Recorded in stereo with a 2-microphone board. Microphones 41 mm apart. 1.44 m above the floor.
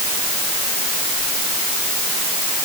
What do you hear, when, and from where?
Only background noise.